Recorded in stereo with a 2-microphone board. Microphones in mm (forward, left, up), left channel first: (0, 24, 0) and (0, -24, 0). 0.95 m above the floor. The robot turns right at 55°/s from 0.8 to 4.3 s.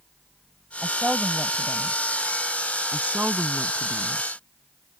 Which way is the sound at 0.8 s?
165° right.